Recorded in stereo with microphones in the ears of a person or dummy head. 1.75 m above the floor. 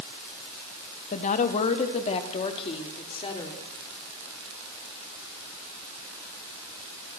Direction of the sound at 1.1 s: 45° left (ahead or behind).